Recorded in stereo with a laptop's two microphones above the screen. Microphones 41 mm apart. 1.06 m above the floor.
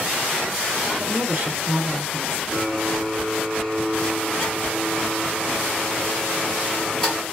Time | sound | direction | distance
1.0 | a woman speaking | 45° right (ahead or behind) | 1.0 m
2.5 | a blender | 15° left (ahead or behind) | 1.8 m